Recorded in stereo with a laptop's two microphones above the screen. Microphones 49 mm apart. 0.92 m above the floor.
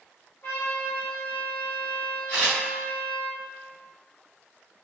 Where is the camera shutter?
30° left (ahead or behind), 1.4 m.